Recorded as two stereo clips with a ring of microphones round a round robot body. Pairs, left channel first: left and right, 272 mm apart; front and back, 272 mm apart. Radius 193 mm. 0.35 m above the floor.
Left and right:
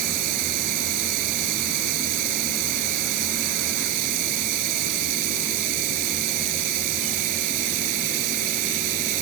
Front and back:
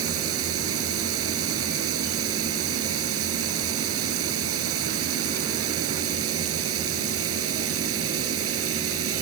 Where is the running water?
125° right.